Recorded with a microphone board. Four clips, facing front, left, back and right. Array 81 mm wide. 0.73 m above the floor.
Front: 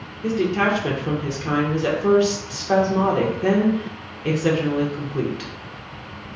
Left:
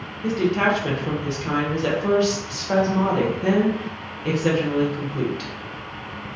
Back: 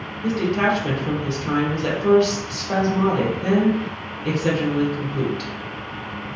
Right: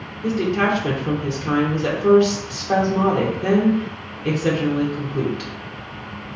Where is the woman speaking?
10° right, 0.6 m.